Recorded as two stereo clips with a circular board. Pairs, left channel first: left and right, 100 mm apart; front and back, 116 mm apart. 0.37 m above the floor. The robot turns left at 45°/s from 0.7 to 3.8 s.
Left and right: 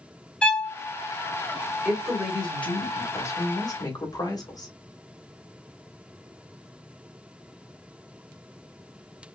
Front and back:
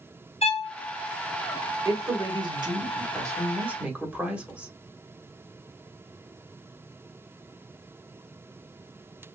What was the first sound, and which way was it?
A violin, 10° left.